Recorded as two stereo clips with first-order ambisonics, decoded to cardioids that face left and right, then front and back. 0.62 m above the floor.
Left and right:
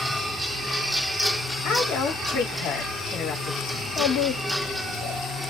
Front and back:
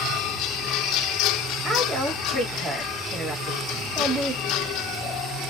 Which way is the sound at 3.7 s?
90° left.